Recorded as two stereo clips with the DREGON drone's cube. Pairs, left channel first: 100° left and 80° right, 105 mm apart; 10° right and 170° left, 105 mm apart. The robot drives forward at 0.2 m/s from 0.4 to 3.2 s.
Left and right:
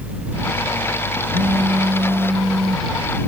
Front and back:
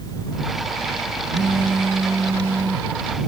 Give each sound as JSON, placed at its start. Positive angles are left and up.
{"t": 1.3, "sound": "a phone buzzing", "azimuth_deg": -115}